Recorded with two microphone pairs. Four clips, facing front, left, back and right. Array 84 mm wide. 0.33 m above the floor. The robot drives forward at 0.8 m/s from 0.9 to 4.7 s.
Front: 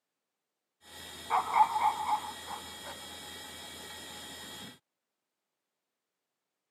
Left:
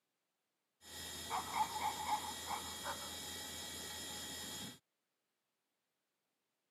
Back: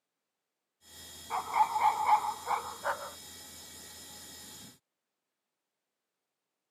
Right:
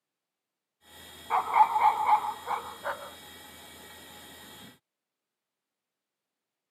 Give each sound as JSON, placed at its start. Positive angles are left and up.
{"t": 1.3, "sound": "a dog barking", "azimuth_deg": -60}